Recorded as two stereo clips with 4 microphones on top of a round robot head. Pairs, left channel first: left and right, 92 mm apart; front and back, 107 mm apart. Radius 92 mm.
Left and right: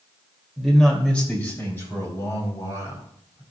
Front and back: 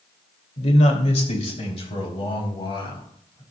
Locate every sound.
0.6 s a man speaking: straight ahead, 2.5 m; by 3.4 s 40° left, 5 m